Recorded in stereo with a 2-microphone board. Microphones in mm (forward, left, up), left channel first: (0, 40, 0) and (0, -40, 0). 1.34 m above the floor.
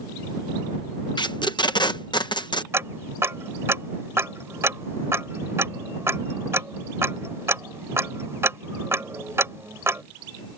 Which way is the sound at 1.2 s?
65° left (ahead or behind).